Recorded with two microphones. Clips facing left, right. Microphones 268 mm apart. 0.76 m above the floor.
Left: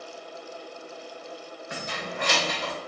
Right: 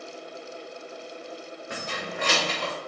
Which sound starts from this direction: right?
Keys jangling, at 1.7 s.